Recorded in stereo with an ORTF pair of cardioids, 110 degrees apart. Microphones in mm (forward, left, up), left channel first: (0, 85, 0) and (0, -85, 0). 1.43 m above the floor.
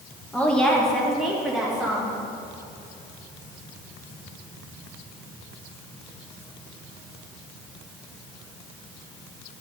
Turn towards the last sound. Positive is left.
turn(degrees=-5)